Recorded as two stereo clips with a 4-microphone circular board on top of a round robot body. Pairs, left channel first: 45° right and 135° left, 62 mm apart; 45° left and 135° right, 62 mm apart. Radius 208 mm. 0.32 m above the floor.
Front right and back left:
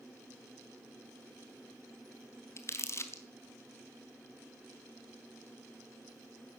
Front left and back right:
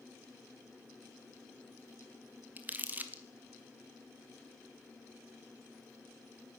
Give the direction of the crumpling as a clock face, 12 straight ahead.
3 o'clock.